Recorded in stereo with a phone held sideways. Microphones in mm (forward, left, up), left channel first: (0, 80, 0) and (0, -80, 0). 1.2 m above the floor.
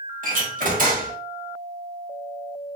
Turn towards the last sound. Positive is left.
turn(degrees=-60)  # may be behind; listen again after turning